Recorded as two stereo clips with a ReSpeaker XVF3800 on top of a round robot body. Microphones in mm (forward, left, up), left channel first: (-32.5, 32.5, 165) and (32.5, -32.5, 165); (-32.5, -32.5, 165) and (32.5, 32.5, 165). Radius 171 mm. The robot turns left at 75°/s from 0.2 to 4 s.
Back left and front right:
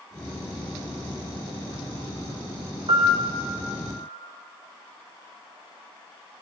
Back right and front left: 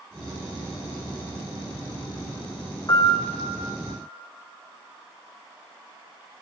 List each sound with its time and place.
2.9 s a piano: 80° right, 1.1 m; by 3.2 s 100° right, 1.1 m